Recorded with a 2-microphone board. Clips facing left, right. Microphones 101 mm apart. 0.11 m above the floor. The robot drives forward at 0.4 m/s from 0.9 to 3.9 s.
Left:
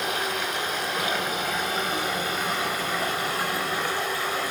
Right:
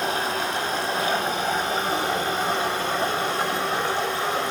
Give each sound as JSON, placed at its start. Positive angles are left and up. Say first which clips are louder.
{"t": 0.0, "sound": "running water", "louder": "right 3 dB", "side_deg": -35, "distance_m": 4.5}